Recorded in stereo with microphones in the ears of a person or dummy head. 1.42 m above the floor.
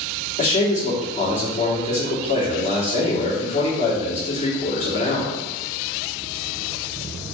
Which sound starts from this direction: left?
A man speaking, at 0.4 s.